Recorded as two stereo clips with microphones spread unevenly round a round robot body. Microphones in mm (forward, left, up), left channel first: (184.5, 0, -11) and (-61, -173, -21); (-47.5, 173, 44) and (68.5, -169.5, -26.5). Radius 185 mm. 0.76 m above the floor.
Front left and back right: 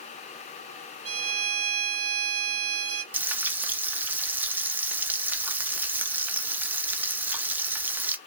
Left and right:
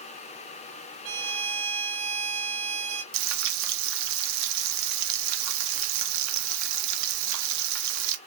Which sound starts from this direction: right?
A violin, at 1.1 s.